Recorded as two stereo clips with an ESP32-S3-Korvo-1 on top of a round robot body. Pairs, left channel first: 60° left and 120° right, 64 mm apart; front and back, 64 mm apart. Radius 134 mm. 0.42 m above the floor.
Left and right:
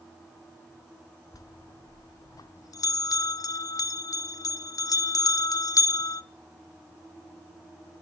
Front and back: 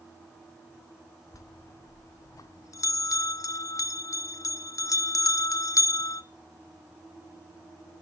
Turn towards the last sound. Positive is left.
turn(degrees=35)